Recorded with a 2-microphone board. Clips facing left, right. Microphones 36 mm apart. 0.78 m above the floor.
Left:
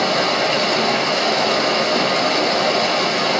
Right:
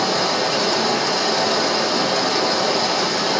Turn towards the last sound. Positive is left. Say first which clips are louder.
# left 2 dB
turn(degrees=35)  # may be behind; listen again after turning